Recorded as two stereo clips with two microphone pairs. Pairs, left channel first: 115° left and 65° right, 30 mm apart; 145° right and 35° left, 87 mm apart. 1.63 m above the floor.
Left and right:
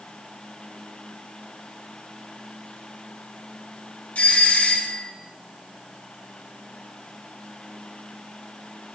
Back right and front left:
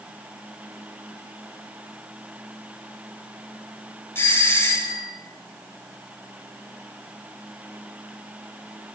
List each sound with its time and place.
4.2 s a doorbell: 155° left, 6.5 m